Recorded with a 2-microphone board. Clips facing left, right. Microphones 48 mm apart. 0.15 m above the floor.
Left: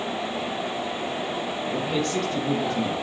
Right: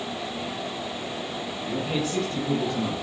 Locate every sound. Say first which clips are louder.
1.6 s a man speaking: left 1 dB; 10° right (ahead or behind), 3.5 m; by 2.9 s 15° left (ahead or behind), 4 m